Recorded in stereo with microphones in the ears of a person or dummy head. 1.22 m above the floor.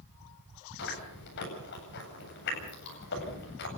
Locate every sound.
0.8 s chewing: 55° left (ahead or behind), 8.5 m